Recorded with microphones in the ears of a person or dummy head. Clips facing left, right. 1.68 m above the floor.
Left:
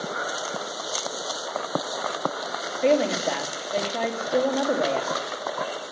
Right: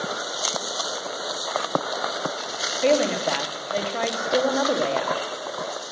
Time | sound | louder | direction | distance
2.8 | a woman speaking | right 1 dB | centre (ahead or behind) | 1.6 m